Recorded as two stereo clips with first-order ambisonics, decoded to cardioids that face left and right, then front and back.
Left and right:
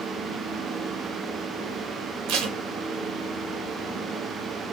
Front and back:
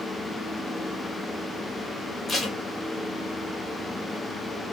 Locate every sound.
2.3 s tape being pulled: 80° right, 0.7 m